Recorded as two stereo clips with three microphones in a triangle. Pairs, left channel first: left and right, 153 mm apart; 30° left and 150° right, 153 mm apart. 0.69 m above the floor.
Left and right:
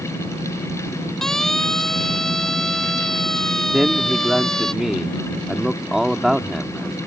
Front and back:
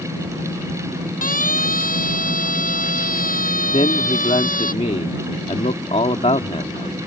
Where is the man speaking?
5° right.